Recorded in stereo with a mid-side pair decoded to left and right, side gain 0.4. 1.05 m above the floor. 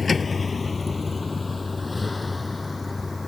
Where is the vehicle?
35° left; by 3.3 s 20° left.